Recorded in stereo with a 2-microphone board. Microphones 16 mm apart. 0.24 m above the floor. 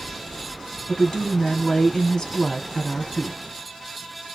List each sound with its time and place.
0.9 s a woman speaking: 25° left (ahead or behind), 1.6 m